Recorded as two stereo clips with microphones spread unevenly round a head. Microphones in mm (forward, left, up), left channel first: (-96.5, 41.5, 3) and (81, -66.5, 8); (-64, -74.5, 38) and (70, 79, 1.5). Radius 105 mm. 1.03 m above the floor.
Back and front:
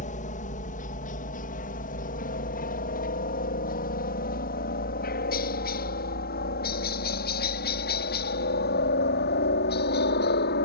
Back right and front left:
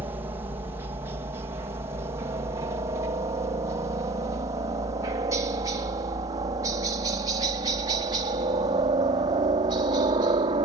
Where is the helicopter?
115° left; by 10.7 s 110° left.